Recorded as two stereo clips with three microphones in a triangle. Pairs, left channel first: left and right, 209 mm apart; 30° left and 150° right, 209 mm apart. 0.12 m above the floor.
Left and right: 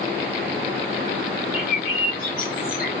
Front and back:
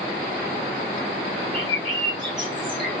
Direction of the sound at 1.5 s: 60° right.